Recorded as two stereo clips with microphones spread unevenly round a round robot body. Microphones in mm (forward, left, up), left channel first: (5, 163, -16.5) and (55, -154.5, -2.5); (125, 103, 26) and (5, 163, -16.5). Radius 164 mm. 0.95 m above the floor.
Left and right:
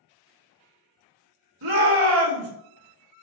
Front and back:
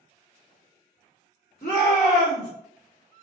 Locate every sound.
1.6 s a shout: 90° right, 1.8 m